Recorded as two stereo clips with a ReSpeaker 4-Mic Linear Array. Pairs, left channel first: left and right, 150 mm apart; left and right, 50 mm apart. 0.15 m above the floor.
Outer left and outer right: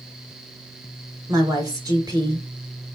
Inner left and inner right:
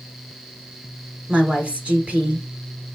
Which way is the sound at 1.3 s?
25° right (ahead or behind).